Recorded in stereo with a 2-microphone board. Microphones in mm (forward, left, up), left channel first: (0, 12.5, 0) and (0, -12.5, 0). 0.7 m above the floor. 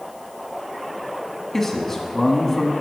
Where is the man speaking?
15° left (ahead or behind), 1.0 m.